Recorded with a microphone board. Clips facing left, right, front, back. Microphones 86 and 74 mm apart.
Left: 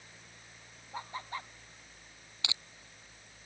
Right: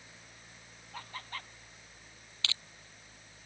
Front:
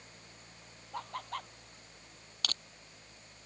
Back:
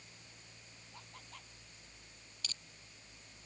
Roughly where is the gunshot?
No gunshot in this recording.